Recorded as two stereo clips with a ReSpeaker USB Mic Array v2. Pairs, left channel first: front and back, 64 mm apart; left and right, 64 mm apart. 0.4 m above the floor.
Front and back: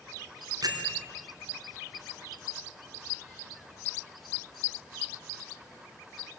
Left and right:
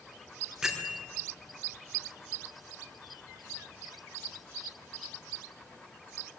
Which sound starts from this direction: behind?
A bell, at 0.6 s.